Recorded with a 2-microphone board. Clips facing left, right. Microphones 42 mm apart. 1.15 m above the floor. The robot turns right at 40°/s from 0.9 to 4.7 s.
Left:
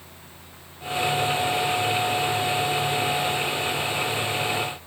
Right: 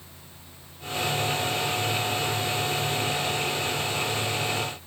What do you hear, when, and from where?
Only background noise.